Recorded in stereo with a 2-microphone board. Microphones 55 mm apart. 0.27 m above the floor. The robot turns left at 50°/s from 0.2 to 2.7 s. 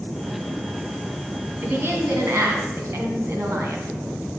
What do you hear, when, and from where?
1.6 s a woman speaking: 50° right, 2 m; by 3.9 s 105° right, 2 m